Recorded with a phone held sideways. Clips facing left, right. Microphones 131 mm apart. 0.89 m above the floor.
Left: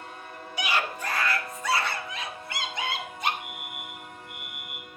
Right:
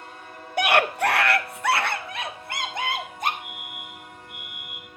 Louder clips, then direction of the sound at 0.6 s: Right 9 dB; 55° right (ahead or behind).